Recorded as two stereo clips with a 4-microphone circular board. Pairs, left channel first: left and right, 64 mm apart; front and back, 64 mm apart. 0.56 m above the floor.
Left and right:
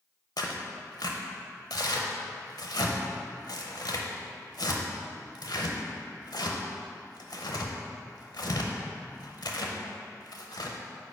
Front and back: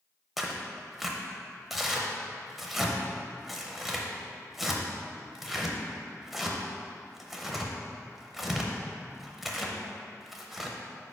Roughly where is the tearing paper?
Left.